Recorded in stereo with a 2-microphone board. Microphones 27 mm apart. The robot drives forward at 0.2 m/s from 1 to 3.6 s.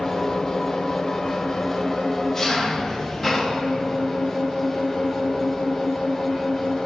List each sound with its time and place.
0.0 s an engine running: 20° left (ahead or behind), 0.8 m; by 6.9 s 10° left (ahead or behind), 1.2 m